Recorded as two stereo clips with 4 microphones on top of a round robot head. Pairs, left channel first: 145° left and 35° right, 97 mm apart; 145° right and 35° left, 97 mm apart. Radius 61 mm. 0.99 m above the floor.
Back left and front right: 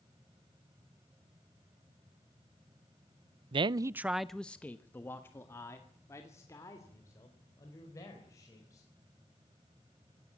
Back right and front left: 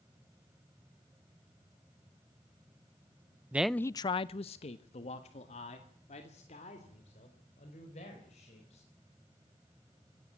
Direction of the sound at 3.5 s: 35° right.